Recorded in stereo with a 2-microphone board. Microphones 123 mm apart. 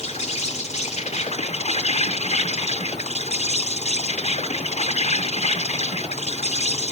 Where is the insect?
65° left (ahead or behind), 1.5 m.